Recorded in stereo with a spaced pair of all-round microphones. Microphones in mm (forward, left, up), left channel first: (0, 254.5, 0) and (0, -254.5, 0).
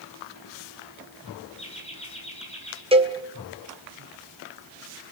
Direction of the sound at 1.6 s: 10° left (ahead or behind).